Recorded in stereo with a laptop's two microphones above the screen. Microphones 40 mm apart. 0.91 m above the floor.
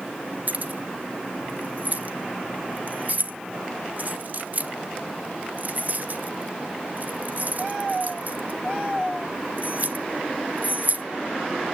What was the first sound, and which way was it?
Keys jangling, 50° right (ahead or behind).